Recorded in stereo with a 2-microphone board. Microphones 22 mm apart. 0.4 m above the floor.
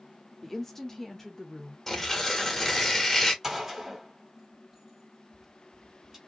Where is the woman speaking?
15° left (ahead or behind), 0.8 m.